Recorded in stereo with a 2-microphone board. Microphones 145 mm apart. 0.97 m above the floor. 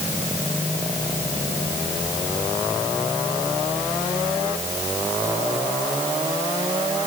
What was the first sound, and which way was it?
Only background noise.